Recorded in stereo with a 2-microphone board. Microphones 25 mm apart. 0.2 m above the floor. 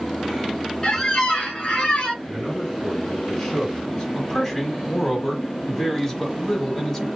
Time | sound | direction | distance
0.8 | a squeak | 30° left (ahead or behind) | 1.4 m
2.2 | a man speaking | 5° left (ahead or behind) | 2 m
4.2 | a man speaking | 10° left (ahead or behind) | 1.4 m